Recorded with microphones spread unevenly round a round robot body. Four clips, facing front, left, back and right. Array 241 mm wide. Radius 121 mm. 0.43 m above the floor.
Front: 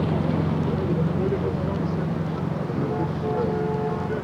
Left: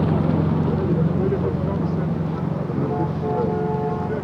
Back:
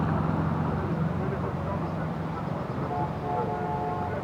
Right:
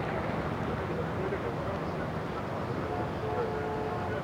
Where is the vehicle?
85° left; by 4.2 s 75° left.